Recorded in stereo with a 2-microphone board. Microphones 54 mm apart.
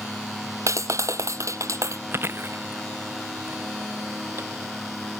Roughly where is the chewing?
Right.